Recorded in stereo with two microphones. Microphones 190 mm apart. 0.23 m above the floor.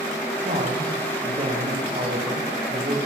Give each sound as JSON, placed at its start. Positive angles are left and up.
{"t": 0.4, "sound": "a man speaking", "side_deg": -40, "distance_m": 8.5}